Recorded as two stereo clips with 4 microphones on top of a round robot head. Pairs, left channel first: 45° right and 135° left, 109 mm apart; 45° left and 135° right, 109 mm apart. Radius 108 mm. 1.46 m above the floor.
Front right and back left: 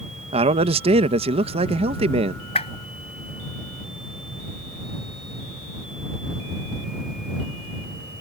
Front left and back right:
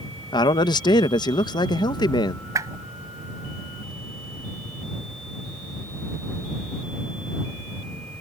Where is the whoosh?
70° right.